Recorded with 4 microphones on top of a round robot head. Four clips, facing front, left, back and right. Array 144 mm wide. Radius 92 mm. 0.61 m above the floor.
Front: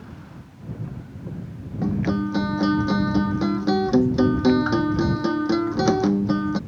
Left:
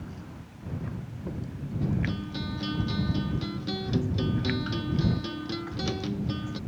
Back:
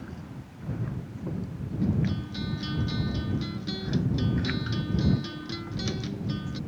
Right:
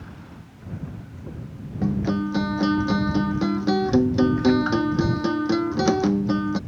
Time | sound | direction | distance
1.8 | a guitar | 40° right | ?